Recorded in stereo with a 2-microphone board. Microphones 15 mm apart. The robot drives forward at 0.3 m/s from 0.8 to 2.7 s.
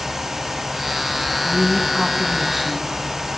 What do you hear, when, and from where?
1.4 s a woman speaking: 30° right (ahead or behind), 1.6 m; by 3.0 s 25° right (ahead or behind), 1.9 m